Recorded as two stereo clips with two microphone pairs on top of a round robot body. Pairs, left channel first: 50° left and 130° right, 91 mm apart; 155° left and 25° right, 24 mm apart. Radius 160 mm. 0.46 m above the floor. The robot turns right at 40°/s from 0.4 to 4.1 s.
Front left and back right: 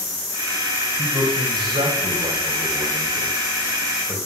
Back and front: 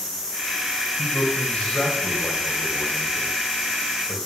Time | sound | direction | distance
1.0 | a man speaking | straight behind | 4.5 m